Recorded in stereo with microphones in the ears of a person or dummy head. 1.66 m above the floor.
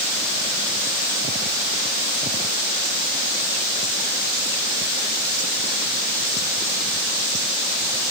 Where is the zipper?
No zipper in this recording.